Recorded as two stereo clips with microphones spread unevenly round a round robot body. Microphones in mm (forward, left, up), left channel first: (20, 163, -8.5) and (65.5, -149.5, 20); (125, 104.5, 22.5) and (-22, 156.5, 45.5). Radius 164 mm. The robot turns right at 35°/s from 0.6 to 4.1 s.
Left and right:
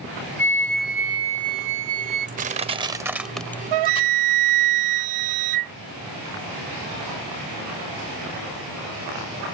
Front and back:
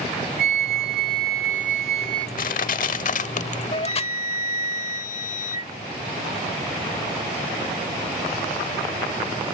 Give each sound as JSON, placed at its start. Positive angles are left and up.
{"t": 0.4, "sound": "a flute", "azimuth_deg": 180}
{"t": 2.4, "sound": "crushing", "azimuth_deg": -30}
{"t": 3.7, "sound": "a flute", "azimuth_deg": -85}